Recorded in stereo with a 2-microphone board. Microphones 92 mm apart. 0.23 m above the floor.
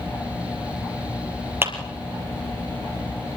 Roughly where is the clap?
Right.